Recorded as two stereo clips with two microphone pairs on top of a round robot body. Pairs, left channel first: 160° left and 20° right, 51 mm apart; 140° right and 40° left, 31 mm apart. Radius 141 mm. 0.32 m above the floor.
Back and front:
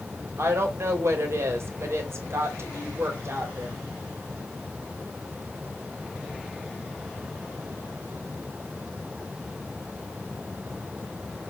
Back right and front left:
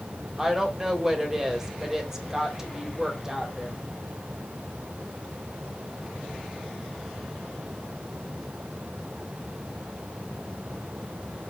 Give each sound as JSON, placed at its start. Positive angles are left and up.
{"t": 0.4, "sound": "a woman speaking", "azimuth_deg": -30, "distance_m": 1.7}